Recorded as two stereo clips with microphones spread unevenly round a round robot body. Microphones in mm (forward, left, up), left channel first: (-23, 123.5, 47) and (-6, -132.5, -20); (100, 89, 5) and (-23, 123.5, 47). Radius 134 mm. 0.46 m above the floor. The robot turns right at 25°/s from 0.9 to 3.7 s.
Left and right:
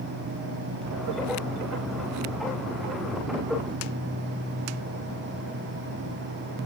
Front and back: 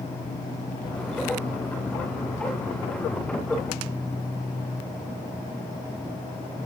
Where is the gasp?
No gasp in this recording.